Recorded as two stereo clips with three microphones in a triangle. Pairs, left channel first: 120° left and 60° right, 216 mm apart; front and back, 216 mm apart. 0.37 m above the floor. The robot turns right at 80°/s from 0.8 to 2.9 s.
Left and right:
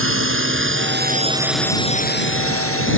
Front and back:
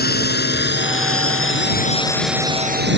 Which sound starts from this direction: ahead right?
A drone, at 0.0 s.